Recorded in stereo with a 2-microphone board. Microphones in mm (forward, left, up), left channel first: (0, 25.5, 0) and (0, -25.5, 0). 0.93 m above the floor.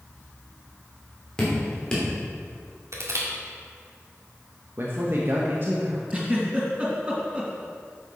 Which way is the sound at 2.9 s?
70° right (ahead or behind).